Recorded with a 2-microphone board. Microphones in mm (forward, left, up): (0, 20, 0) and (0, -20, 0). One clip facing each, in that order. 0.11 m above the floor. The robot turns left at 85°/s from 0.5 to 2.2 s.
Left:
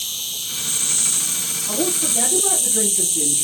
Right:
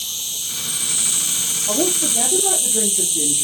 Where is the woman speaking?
125° right, 2.5 m; by 3.4 s 170° right, 2.5 m.